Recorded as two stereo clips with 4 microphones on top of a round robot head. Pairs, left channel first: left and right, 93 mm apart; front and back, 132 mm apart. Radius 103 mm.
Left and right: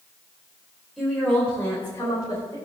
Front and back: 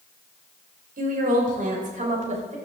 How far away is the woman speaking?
About 4 m.